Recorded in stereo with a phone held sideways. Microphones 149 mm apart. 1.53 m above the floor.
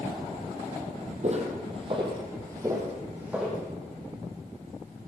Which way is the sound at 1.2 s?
50° right (ahead or behind).